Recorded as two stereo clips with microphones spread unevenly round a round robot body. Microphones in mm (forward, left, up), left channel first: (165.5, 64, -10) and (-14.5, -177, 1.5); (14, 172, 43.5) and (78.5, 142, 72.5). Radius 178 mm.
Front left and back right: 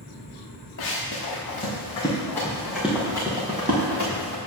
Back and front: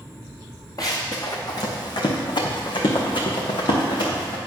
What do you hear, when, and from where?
0.8 s running footsteps: 110° left, 2 m; by 4.4 s 175° left, 2 m